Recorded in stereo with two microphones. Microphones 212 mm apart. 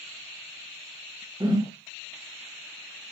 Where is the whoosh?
20° right (ahead or behind), 0.8 m.